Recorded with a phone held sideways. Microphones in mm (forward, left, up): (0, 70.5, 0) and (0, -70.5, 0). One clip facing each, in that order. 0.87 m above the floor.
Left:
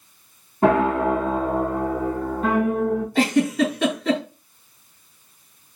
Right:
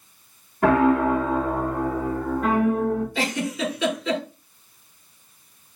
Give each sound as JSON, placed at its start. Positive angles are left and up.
{"t": 0.6, "sound": "a piano", "side_deg": 25, "distance_m": 1.6}
{"t": 3.1, "sound": "a giggle", "side_deg": 50, "distance_m": 2.5}